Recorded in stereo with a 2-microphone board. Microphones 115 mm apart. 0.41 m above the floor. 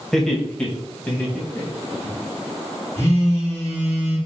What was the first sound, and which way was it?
Laughter, 5° left (ahead or behind).